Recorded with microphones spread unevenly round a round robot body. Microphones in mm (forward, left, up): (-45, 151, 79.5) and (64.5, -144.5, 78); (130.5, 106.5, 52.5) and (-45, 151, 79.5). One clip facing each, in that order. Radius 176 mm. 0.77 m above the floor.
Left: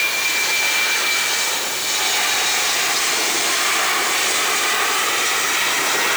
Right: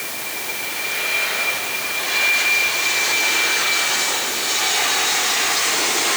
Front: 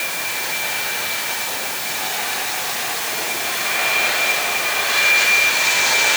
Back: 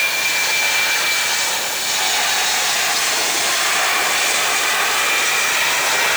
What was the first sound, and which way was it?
Only background noise.